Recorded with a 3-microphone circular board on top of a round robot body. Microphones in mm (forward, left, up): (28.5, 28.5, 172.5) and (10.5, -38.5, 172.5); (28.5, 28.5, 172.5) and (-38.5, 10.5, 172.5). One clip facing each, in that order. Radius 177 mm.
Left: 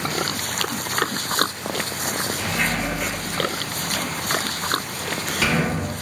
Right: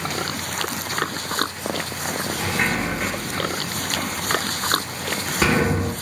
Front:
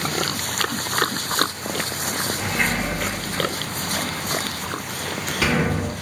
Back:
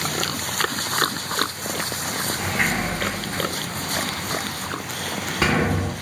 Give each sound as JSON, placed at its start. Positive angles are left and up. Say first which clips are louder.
{"t": 2.4, "sound": "a sliding door", "louder": "right 2 dB, back 1 dB", "azimuth_deg": -130, "distance_m": 1.7}